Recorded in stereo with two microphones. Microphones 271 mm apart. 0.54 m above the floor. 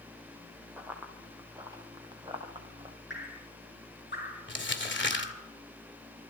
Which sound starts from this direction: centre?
Running footsteps, at 0.8 s.